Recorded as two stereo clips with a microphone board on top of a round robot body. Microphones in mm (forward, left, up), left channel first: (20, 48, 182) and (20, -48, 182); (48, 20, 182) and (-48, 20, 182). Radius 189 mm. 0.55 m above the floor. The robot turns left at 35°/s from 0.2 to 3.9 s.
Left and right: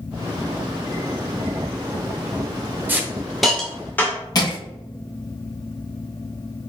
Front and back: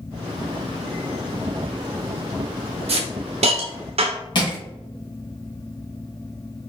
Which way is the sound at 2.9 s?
160° right.